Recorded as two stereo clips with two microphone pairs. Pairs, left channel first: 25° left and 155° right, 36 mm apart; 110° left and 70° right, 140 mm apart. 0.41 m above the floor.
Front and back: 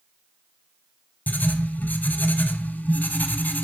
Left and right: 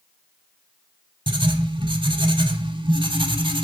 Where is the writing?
10° right, 0.8 m.